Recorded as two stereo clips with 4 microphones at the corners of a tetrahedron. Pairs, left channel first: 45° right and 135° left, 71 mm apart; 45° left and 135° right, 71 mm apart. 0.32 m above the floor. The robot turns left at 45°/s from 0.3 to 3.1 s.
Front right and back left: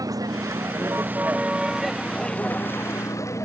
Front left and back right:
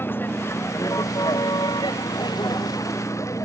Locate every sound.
0.0 s a vehicle: 105° left; by 3.4 s 5° left